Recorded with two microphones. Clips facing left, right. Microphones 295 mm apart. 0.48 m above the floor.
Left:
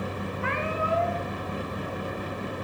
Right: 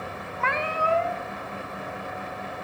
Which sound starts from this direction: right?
A cat meowing, at 0.4 s.